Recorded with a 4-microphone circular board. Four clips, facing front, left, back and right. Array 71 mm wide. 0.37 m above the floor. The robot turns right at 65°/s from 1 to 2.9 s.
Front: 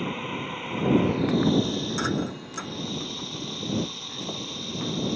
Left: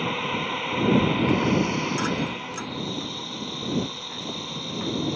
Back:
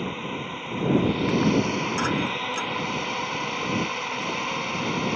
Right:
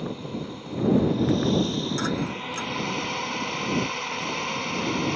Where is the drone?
90° left; by 5.2 s 145° right.